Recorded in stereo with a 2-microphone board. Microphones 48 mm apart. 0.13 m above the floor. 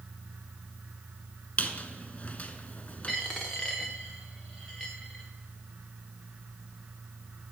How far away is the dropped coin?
About 1.7 m.